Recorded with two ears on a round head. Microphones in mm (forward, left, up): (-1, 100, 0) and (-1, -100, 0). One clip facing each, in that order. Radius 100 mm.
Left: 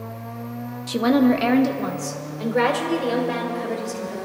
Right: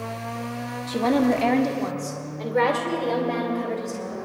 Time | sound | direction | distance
0.9 | a woman speaking | 15° left (ahead or behind) | 0.8 m